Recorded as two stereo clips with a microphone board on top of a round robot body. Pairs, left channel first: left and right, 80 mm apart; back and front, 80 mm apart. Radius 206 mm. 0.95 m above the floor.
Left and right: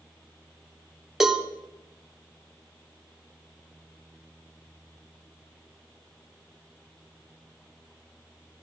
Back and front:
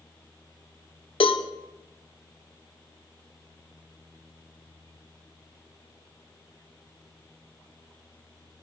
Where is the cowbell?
175° right, 1.6 m.